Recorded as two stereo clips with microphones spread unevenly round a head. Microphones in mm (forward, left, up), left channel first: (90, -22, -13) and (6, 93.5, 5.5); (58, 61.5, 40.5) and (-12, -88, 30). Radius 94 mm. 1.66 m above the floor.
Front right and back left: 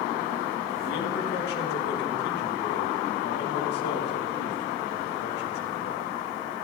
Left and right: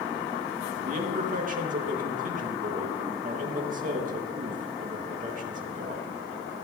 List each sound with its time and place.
0.8 s a man speaking: 75° right, 3.5 m